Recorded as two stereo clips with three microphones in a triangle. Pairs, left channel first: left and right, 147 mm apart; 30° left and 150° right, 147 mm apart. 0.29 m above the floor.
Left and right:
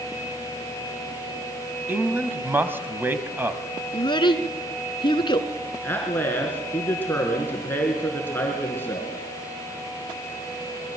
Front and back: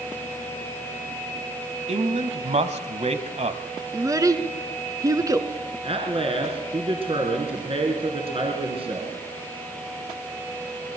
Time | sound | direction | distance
1.9 | a man speaking | 160° right | 1.7 m
3.9 | a child speaking | 145° left | 2.0 m
5.8 | a man speaking | 165° left | 4 m